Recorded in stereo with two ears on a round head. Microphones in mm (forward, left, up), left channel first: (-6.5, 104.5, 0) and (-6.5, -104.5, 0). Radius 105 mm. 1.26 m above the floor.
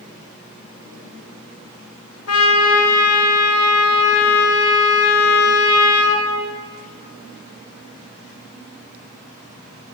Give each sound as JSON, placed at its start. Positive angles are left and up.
{"t": 2.3, "sound": "a trumpet", "side_deg": 80, "distance_m": 2.0}